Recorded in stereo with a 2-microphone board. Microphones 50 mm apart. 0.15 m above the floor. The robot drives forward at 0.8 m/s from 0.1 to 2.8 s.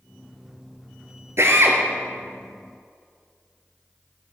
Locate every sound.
1.4 s a drill: 65° right (ahead or behind), 1.8 m; by 1.8 s 60° right (ahead or behind), 1.9 m